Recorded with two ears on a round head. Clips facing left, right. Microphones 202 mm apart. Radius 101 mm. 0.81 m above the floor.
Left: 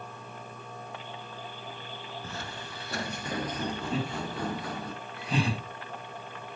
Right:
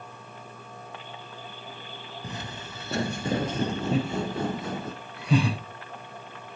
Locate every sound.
2.2 s footsteps: 15° right (ahead or behind), 0.8 m; by 4.9 s 20° right (ahead or behind), 2 m
3.9 s laughter: 60° right (ahead or behind), 5 m